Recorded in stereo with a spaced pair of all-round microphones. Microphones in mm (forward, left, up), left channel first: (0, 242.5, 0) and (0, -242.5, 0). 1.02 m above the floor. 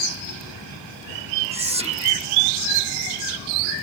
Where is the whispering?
10° right (ahead or behind).